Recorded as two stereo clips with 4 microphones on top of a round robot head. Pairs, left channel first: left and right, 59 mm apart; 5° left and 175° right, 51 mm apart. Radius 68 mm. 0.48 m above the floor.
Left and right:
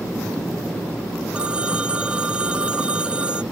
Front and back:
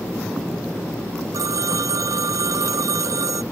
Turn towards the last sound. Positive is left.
turn(degrees=-165)